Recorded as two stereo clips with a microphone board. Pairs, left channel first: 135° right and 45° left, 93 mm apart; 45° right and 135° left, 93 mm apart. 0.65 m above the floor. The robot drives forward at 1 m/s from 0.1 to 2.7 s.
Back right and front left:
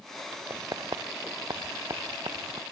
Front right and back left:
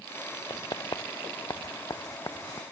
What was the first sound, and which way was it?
Writing, straight ahead.